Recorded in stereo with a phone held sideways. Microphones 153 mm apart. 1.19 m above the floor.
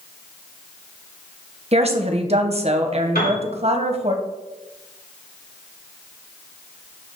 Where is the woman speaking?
40° right (ahead or behind), 0.9 m.